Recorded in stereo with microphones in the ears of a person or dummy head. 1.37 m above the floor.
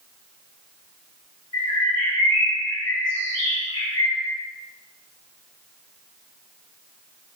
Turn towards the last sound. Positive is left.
turn(degrees=30)  # may be behind; listen again after turning